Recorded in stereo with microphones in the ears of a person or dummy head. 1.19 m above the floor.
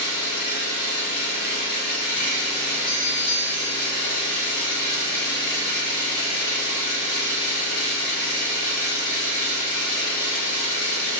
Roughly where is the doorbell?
Left.